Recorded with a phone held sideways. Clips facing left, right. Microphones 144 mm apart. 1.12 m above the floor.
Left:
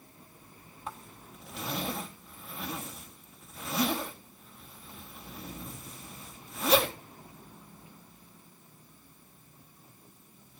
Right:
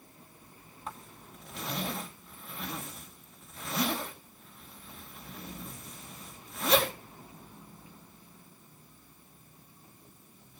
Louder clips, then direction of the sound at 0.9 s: Left 1 dB; 5° left (ahead or behind).